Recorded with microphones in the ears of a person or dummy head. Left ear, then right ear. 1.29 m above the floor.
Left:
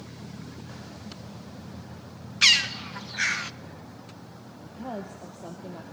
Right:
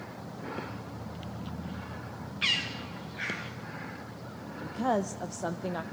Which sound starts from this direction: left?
A bird, at 2.4 s.